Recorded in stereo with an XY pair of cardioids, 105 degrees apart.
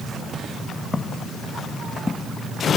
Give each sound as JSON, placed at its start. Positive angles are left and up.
{"t": 0.9, "sound": "footsteps", "azimuth_deg": 20}